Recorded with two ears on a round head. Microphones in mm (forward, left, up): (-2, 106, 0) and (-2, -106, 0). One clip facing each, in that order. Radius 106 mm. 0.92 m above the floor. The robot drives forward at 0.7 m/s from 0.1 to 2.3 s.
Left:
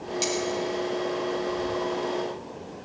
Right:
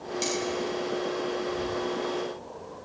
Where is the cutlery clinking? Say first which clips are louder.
Left 2 dB; 5° left (ahead or behind), 4 m.